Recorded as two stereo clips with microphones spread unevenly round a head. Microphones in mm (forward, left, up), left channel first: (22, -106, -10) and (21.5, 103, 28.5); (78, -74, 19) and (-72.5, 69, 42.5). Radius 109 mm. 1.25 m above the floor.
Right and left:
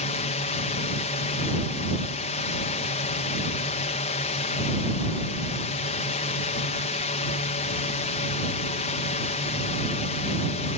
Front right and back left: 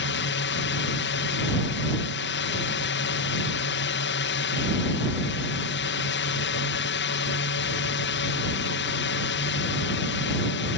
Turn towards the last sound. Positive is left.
turn(degrees=-40)